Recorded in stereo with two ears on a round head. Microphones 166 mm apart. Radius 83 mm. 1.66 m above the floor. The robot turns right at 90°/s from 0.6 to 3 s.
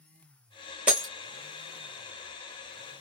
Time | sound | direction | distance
0.9 | breaking glass | 5° right (ahead or behind) | 1.0 m